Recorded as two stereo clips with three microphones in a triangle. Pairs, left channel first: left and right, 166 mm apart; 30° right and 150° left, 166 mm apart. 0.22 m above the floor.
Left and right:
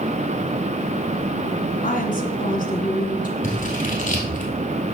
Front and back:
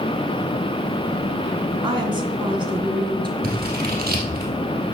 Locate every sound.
1.8 s a woman speaking: 95° left, 2 m
3.4 s scissors: 130° left, 3 m